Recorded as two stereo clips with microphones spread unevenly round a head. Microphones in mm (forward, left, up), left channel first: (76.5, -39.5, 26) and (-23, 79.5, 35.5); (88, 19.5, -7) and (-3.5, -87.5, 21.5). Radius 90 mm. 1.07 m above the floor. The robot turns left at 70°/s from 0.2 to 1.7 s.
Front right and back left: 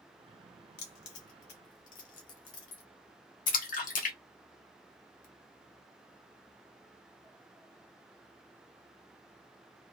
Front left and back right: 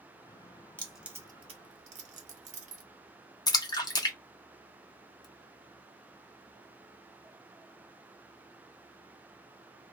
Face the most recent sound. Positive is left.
turn(degrees=-15)